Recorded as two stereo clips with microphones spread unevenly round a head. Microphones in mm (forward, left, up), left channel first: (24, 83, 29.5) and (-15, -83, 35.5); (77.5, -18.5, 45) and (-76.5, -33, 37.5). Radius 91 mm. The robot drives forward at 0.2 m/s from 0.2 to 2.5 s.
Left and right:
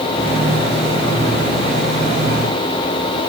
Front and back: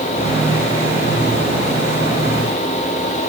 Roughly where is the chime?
No chime in this recording.